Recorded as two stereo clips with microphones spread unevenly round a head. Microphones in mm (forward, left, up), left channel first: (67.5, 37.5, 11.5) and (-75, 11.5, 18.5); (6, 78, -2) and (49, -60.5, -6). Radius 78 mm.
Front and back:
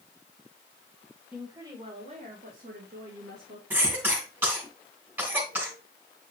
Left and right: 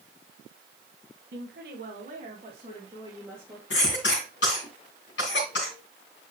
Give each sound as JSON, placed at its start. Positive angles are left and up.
{"t": 1.3, "sound": "a woman speaking", "azimuth_deg": -90, "distance_m": 1.7}
{"t": 3.7, "sound": "a cough", "azimuth_deg": 120, "distance_m": 3.0}